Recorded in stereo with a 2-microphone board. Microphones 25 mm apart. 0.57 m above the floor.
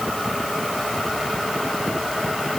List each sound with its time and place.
Only background noise.